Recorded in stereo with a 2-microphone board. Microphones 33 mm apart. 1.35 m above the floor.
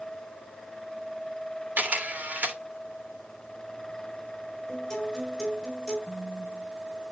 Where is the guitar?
15° left (ahead or behind), 4.5 m.